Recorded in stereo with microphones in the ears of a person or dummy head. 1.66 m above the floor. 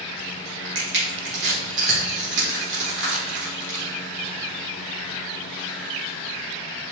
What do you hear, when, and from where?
0.8 s crushing: 60° right (ahead or behind), 1.6 m